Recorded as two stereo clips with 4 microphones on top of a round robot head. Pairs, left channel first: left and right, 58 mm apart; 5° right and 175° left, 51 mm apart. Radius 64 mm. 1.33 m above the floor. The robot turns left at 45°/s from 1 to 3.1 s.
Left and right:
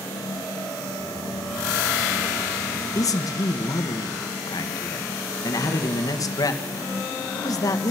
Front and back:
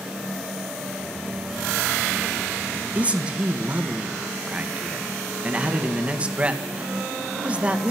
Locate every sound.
3.0 s a man speaking: 115° left, 1.9 m; by 7.9 s 105° left, 1.9 m